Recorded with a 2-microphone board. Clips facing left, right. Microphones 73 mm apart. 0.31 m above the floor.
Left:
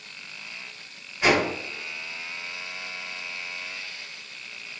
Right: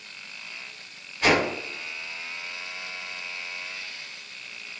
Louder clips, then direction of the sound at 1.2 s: Even; 15° left (ahead or behind).